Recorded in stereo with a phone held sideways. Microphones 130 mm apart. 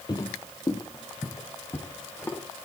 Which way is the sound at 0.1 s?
30° left (ahead or behind).